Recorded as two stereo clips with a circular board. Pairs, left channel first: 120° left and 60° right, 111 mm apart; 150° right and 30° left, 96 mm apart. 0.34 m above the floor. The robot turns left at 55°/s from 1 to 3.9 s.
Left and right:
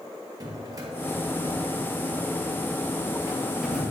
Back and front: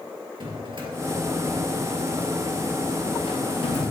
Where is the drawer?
5° right, 2.5 m; by 3.9 s 165° right, 2.5 m.